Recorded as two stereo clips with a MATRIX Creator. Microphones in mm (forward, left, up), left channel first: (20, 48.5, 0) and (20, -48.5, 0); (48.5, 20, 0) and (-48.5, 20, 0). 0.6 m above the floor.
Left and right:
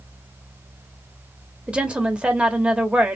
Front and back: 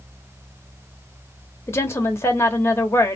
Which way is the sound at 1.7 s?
20° right.